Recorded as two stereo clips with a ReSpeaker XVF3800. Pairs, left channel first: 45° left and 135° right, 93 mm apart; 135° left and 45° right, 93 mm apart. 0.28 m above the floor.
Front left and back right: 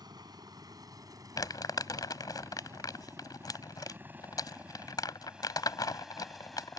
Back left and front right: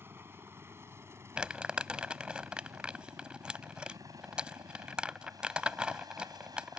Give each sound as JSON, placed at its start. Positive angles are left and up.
{"t": 0.0, "sound": "a helicopter", "azimuth_deg": -105}
{"t": 1.4, "sound": "crumpling", "azimuth_deg": 30}